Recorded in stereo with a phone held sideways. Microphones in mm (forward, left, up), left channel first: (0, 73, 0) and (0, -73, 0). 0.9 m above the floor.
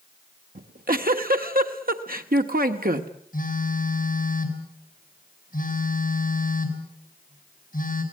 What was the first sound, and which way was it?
A giggle, 90° right.